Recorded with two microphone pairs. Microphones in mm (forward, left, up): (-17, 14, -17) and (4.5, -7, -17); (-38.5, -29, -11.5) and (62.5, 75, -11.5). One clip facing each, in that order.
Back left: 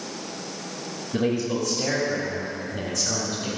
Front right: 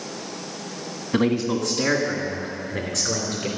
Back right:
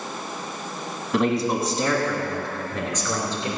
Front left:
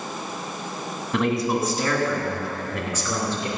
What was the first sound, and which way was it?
A man speaking, 45° right.